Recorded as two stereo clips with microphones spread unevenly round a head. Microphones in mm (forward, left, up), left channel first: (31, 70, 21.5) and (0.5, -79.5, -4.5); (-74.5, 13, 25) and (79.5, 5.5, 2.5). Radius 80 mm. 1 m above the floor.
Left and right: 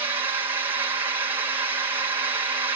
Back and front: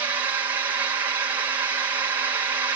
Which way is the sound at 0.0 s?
55° right.